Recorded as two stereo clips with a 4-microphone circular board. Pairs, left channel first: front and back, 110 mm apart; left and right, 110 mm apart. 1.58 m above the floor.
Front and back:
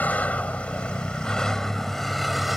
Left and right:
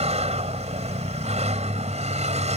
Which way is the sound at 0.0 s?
75° right.